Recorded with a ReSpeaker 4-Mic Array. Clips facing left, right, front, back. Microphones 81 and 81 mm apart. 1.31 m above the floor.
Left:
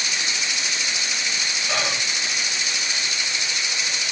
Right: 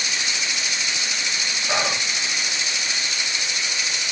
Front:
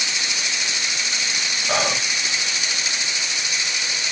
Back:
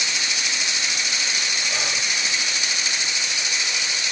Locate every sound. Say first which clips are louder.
1.7 s whispering: right 3 dB, front 10 dB; 20° right, 1.8 m